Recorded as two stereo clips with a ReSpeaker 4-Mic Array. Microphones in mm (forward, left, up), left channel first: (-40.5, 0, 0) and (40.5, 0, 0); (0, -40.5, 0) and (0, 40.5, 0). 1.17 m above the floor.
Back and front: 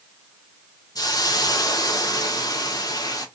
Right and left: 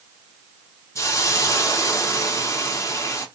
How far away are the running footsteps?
I don't hear running footsteps.